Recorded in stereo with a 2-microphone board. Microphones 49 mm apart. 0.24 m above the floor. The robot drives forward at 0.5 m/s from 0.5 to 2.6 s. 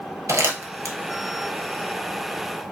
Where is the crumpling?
70° right (ahead or behind), 1.2 m; by 0.9 s 80° right, 1.1 m.